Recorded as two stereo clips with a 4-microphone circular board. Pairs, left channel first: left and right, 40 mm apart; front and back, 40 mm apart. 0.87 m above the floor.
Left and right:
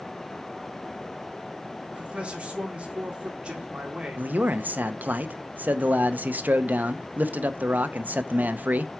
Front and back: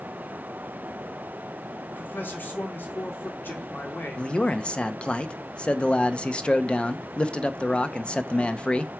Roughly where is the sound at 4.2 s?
Ahead right.